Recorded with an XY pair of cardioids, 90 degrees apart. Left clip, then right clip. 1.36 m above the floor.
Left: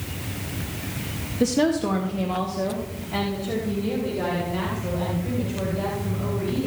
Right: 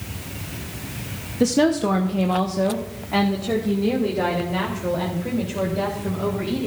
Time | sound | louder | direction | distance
1.4 | a woman speaking | right 3 dB | 20° right | 0.8 m